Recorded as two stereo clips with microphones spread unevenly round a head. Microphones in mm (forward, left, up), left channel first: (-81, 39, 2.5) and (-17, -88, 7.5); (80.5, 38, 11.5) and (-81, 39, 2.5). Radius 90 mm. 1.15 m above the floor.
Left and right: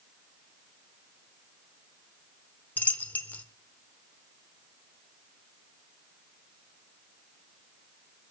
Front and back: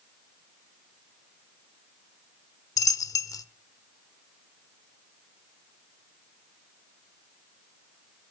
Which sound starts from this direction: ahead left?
A dropped coin, at 2.8 s.